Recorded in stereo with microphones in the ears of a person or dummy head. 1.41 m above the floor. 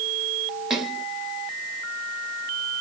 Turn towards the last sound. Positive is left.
turn(degrees=-5)  # may be behind; listen again after turning